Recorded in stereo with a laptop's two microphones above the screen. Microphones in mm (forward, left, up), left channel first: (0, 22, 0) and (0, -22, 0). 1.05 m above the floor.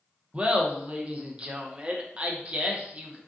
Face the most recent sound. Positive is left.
turn(degrees=-30)  # may be behind; listen again after turning